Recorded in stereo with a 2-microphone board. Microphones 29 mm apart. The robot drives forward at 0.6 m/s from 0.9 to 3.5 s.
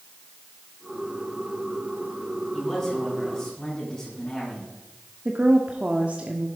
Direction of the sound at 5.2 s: 40° right (ahead or behind).